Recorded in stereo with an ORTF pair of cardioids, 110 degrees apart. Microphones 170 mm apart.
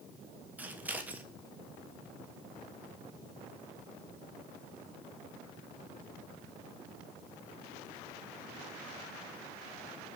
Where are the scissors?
10° right, 1.3 m.